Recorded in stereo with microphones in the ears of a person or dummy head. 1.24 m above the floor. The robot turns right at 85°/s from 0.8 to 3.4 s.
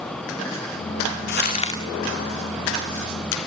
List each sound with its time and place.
1.3 s crumpling: 120° left, 1.9 m; by 1.8 s 160° left, 1.9 m